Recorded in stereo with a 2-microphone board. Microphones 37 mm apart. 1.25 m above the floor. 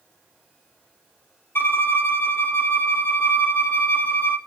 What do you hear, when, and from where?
1.6 s a violin: 75° left (ahead or behind), 1.1 m